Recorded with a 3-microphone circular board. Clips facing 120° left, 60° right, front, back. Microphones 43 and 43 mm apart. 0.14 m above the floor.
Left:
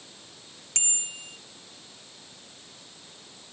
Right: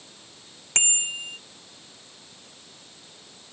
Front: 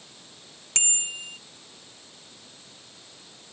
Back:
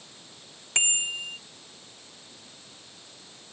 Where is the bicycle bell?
110° right.